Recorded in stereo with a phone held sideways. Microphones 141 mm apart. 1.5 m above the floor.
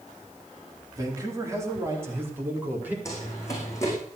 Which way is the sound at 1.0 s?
25° right (ahead or behind).